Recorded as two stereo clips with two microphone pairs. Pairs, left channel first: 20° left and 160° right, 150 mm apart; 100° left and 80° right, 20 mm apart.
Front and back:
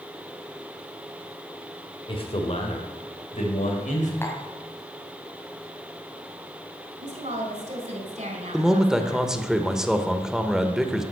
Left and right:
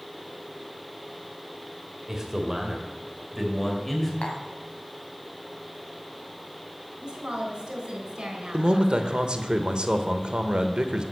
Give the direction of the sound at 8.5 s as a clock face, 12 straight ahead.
2 o'clock.